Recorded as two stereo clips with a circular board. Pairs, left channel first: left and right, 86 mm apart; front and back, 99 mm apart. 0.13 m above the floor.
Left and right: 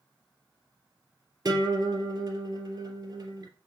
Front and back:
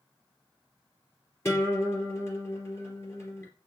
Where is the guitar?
55° right, 3 m.